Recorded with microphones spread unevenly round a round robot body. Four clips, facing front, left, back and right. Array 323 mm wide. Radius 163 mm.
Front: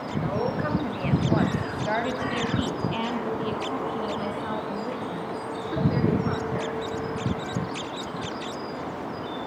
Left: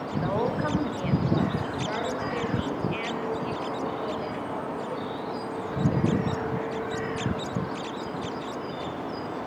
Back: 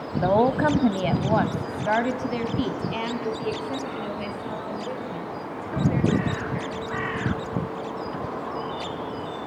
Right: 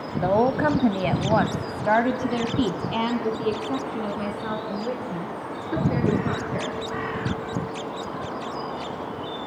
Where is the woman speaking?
150° right, 1.9 m; by 6.8 s 70° right, 5 m.